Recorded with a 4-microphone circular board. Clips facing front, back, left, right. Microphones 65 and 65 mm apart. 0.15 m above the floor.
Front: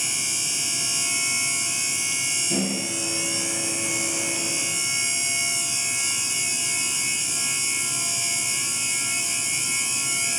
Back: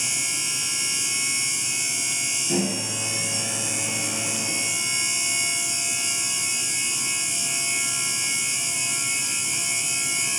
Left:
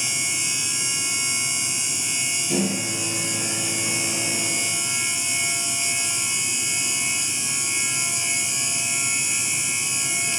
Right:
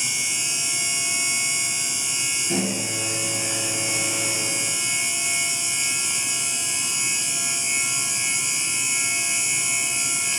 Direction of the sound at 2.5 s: 160° right.